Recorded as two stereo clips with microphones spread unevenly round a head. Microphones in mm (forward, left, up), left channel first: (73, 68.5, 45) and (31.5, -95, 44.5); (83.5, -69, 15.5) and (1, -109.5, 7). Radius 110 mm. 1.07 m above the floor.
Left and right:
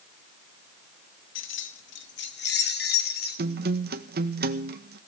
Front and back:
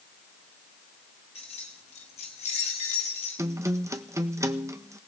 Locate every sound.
1.4 s keys jangling: 85° left, 1.2 m; by 3.4 s 45° left, 2.5 m
3.4 s a guitar: 105° right, 1.4 m